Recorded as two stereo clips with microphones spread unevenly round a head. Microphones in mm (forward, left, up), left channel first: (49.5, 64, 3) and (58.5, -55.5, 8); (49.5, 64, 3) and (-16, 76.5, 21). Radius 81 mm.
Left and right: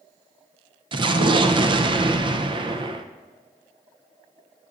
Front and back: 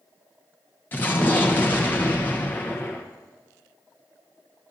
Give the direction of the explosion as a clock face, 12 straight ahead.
2 o'clock.